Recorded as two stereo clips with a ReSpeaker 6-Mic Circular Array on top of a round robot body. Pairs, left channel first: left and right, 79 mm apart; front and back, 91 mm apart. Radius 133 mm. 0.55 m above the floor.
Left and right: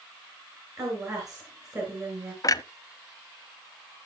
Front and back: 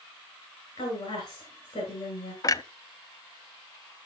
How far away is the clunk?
About 0.7 m.